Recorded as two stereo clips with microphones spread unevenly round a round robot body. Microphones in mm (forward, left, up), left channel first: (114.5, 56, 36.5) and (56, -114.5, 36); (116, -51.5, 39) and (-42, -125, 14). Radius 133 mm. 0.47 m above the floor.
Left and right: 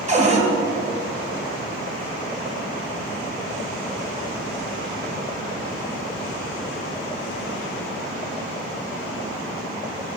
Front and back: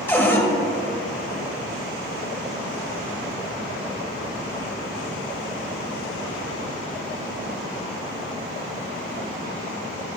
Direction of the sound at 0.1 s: 55° right.